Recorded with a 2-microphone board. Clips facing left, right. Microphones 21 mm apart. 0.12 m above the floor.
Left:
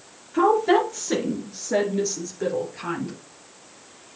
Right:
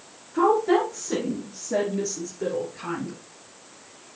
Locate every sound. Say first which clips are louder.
0.3 s a woman speaking: left 2 dB; 45° left (ahead or behind), 2 m; by 3.1 s 15° left (ahead or behind), 2.5 m